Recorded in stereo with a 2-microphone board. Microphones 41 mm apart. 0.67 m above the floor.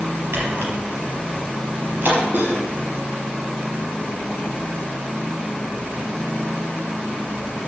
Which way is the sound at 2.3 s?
55° right (ahead or behind).